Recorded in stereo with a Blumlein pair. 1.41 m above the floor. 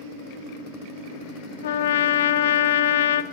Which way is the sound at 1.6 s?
60° left.